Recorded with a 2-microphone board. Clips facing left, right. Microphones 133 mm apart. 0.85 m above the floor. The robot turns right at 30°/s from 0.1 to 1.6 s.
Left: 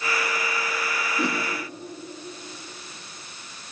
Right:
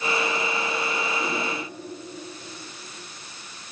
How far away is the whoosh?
About 8.5 m.